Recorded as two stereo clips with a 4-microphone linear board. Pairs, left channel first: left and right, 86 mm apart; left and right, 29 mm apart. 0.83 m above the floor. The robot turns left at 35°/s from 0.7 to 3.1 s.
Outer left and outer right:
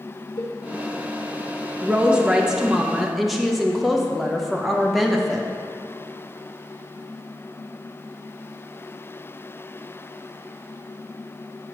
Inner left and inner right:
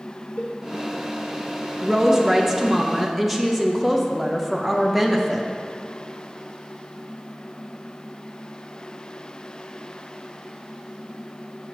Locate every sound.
0.4 s a cowbell: 50° left (ahead or behind), 1.3 m
1.8 s a woman speaking: 15° right (ahead or behind), 0.7 m; by 5.5 s centre (ahead or behind), 0.7 m